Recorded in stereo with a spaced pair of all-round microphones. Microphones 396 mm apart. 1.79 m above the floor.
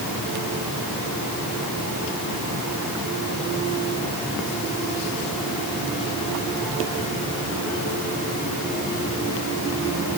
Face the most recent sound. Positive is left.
No sound to turn to.